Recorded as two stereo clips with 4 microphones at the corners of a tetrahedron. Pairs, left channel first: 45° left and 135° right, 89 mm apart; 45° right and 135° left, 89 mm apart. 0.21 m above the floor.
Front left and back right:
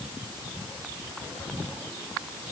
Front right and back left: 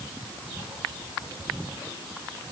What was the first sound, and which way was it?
Only background noise.